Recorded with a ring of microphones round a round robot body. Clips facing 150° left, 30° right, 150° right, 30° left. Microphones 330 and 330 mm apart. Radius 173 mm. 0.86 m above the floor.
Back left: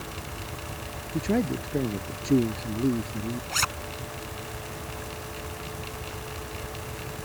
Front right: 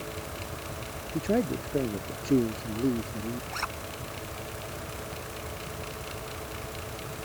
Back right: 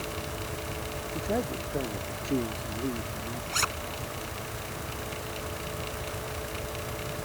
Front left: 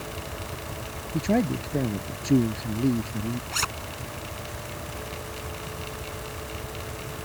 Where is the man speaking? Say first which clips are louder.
Back left 1 dB, front left 8 dB; 75° left.